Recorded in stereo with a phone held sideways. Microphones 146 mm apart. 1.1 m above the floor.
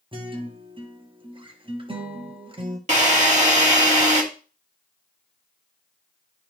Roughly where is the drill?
Right.